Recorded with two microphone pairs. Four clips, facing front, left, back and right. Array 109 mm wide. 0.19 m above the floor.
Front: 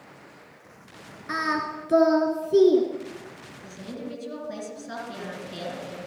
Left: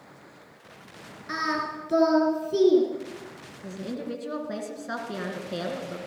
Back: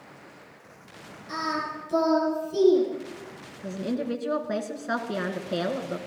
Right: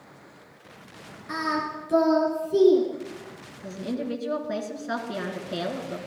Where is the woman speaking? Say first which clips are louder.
Right 3 dB, back 8 dB; 175° left, 2.5 m.